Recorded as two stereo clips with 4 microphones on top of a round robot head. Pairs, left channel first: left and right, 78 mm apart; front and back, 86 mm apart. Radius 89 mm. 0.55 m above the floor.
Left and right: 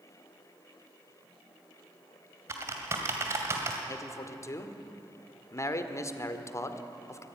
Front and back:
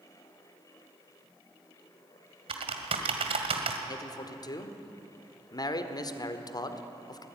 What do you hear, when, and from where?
2.5 s typing on a keyboard: 155° right, 1.8 m
3.9 s a man speaking: 40° left, 1.7 m